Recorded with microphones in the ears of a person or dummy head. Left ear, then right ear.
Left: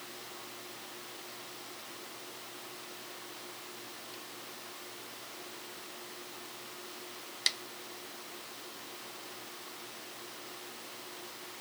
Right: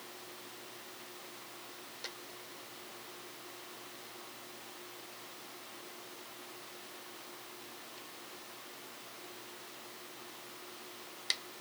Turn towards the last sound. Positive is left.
No sound to turn to.